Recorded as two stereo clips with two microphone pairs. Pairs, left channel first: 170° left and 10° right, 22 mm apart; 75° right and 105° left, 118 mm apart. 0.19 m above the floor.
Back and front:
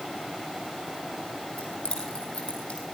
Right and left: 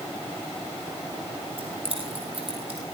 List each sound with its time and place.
1.6 s keys jangling: 140° left, 5 m; by 2.8 s 145° left, 5.5 m